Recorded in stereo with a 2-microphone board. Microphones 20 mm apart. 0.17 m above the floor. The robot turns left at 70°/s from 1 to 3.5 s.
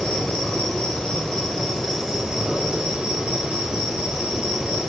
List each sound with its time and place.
0.0 s an insect: 60° left, 3 m; by 4.9 s 115° right, 3 m